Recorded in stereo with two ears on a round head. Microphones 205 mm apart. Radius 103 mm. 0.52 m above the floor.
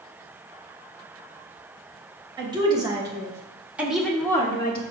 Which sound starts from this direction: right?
A woman speaking, at 2.4 s.